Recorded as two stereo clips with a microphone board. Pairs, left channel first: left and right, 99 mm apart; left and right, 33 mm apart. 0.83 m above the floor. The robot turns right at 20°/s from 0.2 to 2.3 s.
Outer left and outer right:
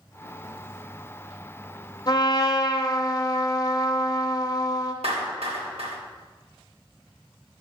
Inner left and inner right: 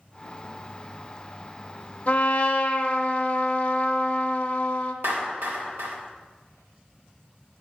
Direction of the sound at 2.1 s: 45° left (ahead or behind).